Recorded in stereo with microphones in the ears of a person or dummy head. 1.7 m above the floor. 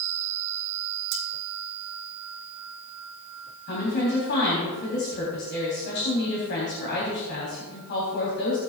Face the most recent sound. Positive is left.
turn(degrees=55)  # may be behind; listen again after turning